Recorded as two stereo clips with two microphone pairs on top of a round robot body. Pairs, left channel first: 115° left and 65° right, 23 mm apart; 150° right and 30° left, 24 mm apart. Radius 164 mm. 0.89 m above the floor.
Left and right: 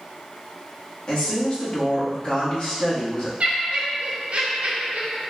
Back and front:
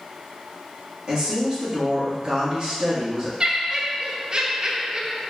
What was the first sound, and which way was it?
A woman speaking, 70° left.